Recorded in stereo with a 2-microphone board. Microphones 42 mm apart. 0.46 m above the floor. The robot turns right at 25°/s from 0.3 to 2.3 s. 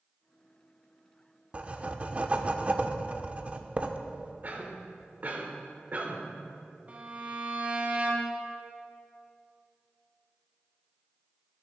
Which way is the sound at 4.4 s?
45° right (ahead or behind).